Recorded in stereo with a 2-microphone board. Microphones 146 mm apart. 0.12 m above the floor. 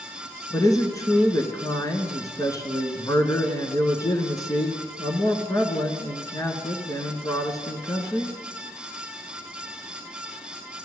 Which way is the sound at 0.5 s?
25° left (ahead or behind).